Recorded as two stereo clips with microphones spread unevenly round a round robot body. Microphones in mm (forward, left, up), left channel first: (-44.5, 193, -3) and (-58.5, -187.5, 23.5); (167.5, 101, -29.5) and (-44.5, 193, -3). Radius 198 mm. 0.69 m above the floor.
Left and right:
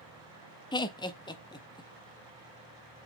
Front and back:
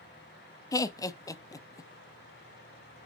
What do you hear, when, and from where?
0.7 s laughter: 25° left, 0.5 m